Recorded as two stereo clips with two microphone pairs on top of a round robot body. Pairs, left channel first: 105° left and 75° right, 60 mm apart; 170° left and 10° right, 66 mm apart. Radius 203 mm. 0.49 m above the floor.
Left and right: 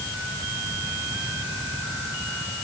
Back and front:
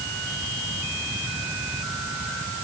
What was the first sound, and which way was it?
Only background noise.